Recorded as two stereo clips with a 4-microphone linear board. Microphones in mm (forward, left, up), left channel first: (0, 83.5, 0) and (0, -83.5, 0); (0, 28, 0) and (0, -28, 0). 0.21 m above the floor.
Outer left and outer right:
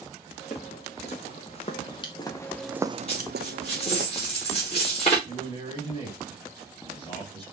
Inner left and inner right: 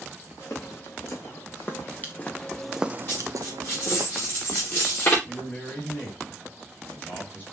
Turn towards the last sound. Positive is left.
turn(degrees=35)  # may be behind; listen again after turning